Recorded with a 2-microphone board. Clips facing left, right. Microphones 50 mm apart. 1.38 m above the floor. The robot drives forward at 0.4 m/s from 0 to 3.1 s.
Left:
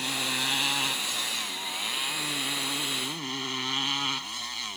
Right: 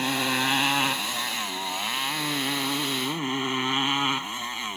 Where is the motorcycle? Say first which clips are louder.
Right 5 dB; 30° right (ahead or behind); by 4.8 s 25° right (ahead or behind).